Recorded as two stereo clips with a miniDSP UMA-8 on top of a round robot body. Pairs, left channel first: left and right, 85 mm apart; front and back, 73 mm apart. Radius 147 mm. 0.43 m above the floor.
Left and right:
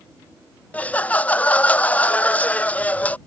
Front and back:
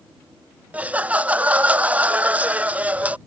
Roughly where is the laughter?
Behind left.